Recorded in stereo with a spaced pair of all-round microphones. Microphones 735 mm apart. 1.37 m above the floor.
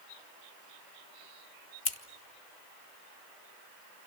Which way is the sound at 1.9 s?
85° left.